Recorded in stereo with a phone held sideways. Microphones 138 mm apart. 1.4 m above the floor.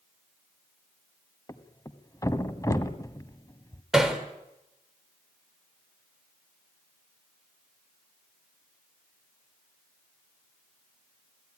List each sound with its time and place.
1.5 s a thud: 25° left (ahead or behind), 1.4 m
3.9 s hammering: 5° right (ahead or behind), 4 m